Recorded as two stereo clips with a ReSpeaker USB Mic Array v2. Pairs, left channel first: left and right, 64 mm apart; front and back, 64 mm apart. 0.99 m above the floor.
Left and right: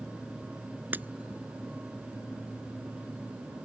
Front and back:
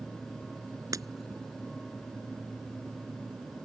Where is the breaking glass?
150° right.